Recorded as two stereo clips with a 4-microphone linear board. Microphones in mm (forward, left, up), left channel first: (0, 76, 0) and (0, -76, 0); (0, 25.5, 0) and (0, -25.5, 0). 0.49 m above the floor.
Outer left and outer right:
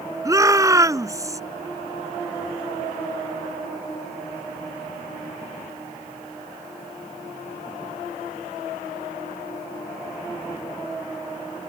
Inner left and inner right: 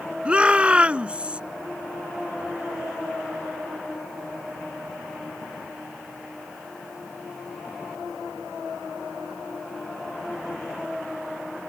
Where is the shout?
20° right (ahead or behind).